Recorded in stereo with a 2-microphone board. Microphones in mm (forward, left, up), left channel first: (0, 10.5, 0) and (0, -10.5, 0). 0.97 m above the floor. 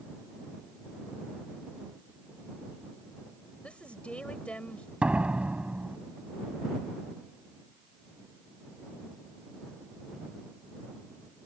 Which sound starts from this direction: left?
A woman speaking, at 3.6 s.